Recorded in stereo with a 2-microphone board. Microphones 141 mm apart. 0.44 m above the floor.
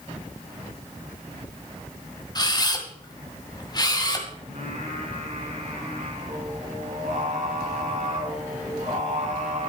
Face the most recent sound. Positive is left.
turn(degrees=-60)  # may be behind; listen again after turning